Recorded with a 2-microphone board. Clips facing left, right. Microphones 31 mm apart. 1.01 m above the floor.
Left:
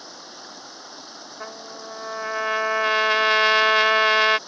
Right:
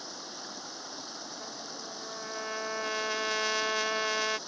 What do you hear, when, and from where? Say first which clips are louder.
0.0 s running water: left 2 dB; 10° left (ahead or behind)
1.4 s a trumpet: left 6 dB; 55° left (ahead or behind)